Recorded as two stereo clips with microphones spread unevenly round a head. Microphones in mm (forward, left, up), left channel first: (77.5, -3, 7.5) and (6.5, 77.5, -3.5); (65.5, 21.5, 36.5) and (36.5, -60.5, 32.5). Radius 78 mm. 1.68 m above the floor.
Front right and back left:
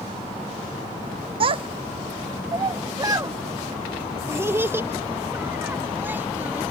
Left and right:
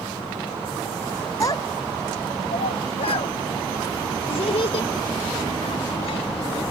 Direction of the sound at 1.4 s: 130° left.